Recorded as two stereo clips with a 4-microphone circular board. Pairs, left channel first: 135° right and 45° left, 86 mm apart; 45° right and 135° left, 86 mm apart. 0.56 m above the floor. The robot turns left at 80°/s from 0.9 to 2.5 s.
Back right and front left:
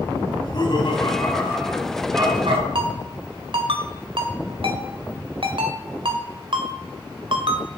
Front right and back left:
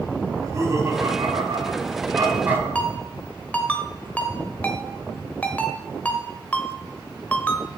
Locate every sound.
0.3 s laughter: 170° right, 3.5 m; by 2.6 s 65° left, 3.5 m
2.8 s a ringtone: 30° left, 1.4 m